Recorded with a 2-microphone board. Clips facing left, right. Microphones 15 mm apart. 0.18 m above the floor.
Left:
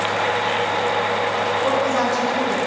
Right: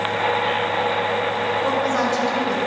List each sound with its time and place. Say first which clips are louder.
1.6 s a woman speaking: left 1 dB; centre (ahead or behind), 2 m